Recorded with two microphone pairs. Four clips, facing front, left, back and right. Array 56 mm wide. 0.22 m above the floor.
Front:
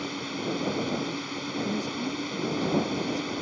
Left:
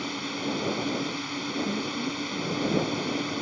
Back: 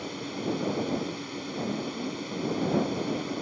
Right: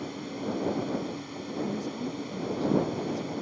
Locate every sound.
0.0 s a drone: 70° left
1.6 s a woman speaking: 20° right